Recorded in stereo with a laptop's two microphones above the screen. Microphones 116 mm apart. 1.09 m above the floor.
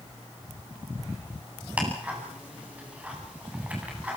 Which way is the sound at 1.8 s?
10° right (ahead or behind).